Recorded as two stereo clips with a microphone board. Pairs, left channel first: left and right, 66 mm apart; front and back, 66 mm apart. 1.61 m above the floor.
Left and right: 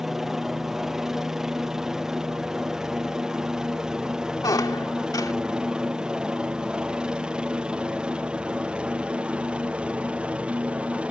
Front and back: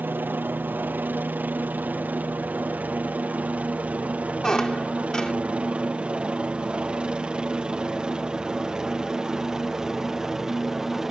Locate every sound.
0.0 s a helicopter: 170° right; by 11.1 s 105° right
4.4 s a squeak: 80° left